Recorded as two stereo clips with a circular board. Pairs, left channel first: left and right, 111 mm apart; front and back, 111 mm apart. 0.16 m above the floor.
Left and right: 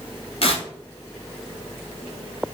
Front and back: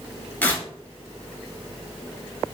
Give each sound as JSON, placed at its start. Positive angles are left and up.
{"t": 0.4, "sound": "tearing paper", "azimuth_deg": 70, "distance_m": 0.9}